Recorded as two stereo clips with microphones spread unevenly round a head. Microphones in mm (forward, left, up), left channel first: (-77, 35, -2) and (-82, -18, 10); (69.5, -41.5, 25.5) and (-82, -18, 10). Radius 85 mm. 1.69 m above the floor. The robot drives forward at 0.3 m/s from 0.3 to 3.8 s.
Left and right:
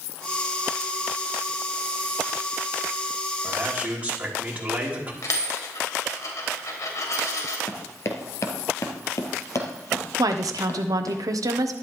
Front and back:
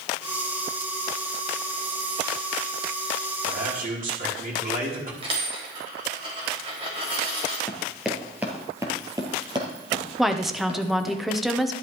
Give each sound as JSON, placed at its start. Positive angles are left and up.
{"t": 3.4, "sound": "a man speaking", "azimuth_deg": -160, "distance_m": 4.5}
{"t": 5.2, "sound": "a dropped coin", "azimuth_deg": 110, "distance_m": 3.5}
{"t": 7.7, "sound": "running footsteps", "azimuth_deg": 65, "distance_m": 1.9}
{"t": 10.2, "sound": "a woman speaking", "azimuth_deg": -100, "distance_m": 1.1}